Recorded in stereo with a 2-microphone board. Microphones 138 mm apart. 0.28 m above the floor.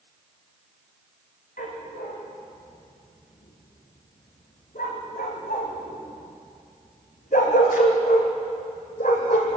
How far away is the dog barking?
About 7 m.